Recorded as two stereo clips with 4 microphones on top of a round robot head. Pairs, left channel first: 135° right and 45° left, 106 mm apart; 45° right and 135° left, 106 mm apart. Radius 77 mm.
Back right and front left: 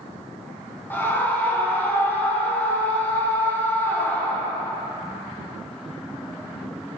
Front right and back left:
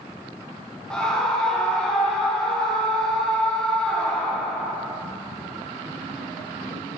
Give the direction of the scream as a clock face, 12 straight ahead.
4 o'clock.